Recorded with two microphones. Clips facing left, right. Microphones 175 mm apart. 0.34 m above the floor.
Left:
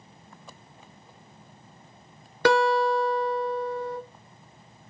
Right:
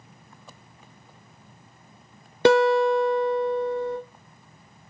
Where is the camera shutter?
No camera shutter in this recording.